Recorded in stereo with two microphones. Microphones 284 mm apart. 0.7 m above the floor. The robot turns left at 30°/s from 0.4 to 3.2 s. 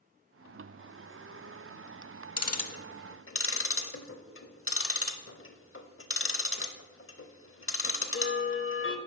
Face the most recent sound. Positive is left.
turn(degrees=50)  # may be behind; listen again after turning